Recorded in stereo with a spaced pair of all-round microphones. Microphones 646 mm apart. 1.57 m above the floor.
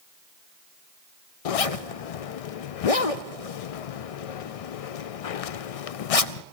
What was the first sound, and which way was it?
A zipper, 65° left (ahead or behind).